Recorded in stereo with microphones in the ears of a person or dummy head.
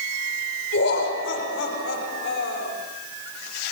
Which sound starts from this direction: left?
Laughter, at 0.7 s.